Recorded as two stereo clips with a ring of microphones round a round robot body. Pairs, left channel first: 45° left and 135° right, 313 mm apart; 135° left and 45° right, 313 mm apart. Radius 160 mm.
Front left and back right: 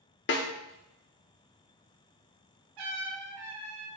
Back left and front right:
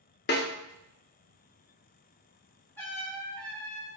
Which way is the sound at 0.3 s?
85° left.